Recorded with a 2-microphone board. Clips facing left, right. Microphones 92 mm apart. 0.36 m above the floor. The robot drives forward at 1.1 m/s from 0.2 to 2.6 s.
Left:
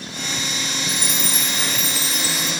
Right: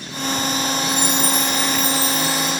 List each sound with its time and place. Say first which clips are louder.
0.9 s a chime: right 6 dB; 85° left, 6 m; by 2.5 s 75° left (ahead or behind), 6.5 m